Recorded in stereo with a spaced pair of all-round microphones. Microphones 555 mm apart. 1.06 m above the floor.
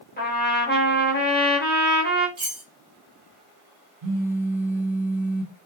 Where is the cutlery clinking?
30° right (ahead or behind), 0.6 m.